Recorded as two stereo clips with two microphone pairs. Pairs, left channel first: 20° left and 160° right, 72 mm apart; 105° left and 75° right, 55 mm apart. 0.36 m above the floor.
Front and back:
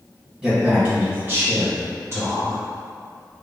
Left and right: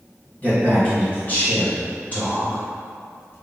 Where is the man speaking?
135° left, 1.6 m; by 2.6 s 165° left, 2.5 m.